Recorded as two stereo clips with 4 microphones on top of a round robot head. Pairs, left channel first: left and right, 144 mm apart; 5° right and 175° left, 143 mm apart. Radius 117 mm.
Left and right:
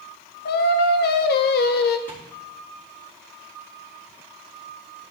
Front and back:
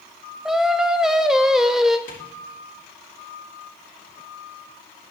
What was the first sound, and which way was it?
Singing, 90° left.